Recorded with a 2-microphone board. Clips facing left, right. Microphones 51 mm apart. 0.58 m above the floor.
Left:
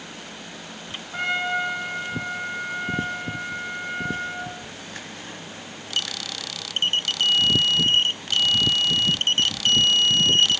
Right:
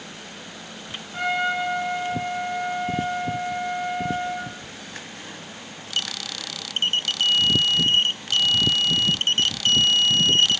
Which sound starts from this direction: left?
A trumpet, at 1.1 s.